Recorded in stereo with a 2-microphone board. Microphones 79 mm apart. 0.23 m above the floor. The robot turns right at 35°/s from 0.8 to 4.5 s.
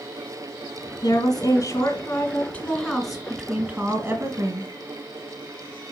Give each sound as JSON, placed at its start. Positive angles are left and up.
{"t": 1.0, "sound": "a woman speaking", "azimuth_deg": 110, "distance_m": 2.5}